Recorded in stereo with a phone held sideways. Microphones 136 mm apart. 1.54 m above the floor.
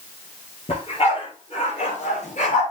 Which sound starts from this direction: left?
A dog barking, at 0.7 s.